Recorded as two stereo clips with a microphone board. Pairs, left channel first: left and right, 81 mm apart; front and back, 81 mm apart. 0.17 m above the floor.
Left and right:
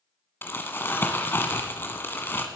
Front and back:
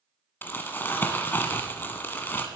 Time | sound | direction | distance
0.4 | crumpling | 50° left | 1.1 m